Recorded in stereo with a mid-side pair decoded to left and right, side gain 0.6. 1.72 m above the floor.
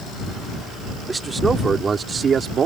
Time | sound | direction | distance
1.1 | a man speaking | 20° right | ?